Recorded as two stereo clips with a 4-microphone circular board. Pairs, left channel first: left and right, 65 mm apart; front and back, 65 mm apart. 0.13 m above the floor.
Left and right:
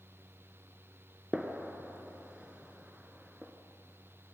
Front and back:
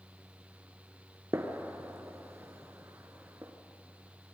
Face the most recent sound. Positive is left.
turn(degrees=-160)